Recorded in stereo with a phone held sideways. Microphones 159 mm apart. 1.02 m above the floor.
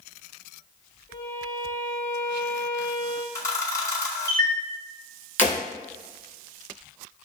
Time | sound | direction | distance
1.1 | a violin | 45° left (ahead or behind) | 1.5 m
3.4 | a camera shutter | 20° left (ahead or behind) | 0.8 m
5.4 | breaking glass | 45° left (ahead or behind) | 1.8 m